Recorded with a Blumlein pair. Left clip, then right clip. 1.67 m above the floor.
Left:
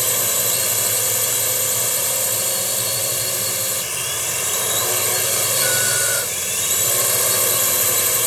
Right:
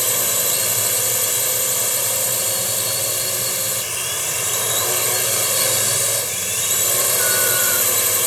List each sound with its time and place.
0.0 s a drone: straight ahead